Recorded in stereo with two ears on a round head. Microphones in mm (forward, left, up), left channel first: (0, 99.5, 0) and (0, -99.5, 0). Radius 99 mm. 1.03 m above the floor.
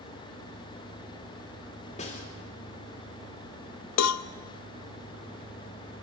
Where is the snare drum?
30° left (ahead or behind), 2.5 m.